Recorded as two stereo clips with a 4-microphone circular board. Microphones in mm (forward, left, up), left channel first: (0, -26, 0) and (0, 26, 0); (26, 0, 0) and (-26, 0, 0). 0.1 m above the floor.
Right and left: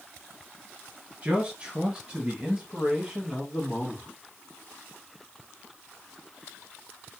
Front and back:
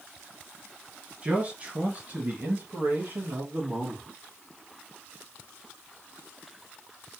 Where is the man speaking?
135° left, 1.5 m; by 4.0 s 165° left, 2.5 m.